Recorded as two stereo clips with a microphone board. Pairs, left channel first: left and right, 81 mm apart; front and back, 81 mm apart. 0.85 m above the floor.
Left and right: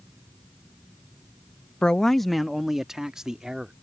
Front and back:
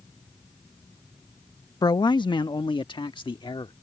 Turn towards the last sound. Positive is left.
turn(degrees=-10)